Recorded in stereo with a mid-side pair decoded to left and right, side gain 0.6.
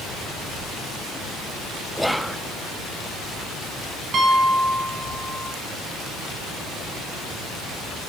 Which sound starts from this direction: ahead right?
A piano, at 4.1 s.